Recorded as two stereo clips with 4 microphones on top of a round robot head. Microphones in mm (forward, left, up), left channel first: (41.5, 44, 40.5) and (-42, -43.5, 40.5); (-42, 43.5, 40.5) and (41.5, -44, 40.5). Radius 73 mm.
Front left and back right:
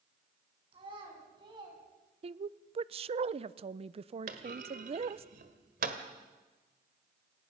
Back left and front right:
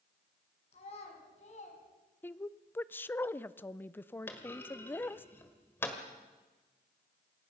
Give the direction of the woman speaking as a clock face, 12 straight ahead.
5 o'clock.